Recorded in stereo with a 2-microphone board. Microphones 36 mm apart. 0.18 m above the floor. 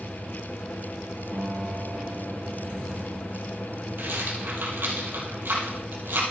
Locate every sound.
1.3 s a piano: 75° right (ahead or behind), 4.5 m
4.0 s a rattle: 70° right (ahead or behind), 4 m